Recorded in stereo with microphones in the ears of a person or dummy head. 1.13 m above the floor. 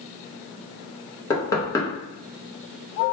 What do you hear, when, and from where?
1.3 s knocking: 20° left (ahead or behind), 1.0 m